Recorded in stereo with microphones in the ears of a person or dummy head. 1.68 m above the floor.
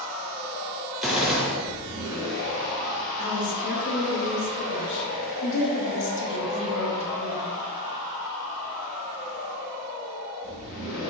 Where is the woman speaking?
65° left (ahead or behind), 1.1 m.